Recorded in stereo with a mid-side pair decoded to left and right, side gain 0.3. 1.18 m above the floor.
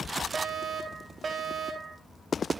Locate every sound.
0.3 s a fire alarm: 65° right, 3 m